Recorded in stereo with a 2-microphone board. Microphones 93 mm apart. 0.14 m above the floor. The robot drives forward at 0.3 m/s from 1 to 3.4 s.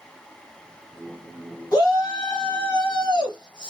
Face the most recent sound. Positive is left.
turn(degrees=45)  # may be behind; listen again after turning